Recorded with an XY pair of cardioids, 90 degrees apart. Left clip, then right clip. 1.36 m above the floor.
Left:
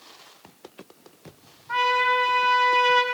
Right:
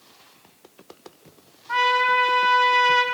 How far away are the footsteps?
I don't hear footsteps.